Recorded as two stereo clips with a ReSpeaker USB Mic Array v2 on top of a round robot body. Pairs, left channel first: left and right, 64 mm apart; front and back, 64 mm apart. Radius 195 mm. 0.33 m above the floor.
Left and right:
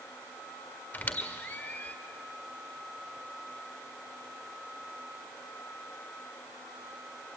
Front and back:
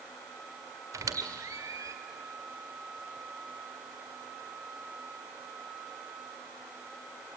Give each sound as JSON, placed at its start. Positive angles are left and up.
{"t": 0.9, "sound": "a squeak", "azimuth_deg": 150, "distance_m": 1.9}